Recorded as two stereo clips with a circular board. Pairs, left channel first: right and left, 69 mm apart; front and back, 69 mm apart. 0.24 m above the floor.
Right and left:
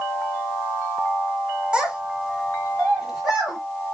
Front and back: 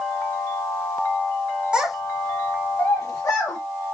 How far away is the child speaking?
About 0.8 m.